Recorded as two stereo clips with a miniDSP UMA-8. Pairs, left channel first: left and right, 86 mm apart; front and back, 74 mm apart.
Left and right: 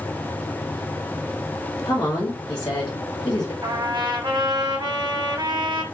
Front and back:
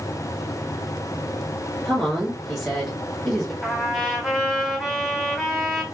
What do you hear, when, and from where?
1.9 s a woman speaking: 80° left, 2.5 m
3.6 s a trumpet: 85° right, 2.5 m